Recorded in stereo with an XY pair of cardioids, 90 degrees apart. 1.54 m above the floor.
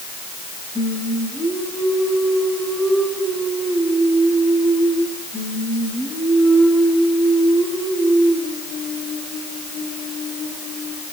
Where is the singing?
15° left, 10 m.